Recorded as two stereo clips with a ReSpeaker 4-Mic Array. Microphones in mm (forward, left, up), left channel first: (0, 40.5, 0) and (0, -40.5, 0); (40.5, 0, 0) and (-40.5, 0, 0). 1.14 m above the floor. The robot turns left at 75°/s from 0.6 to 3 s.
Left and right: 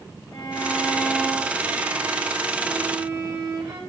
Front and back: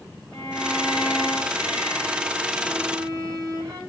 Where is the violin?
55° left, 5.5 m; by 3.8 s 125° right, 5.5 m.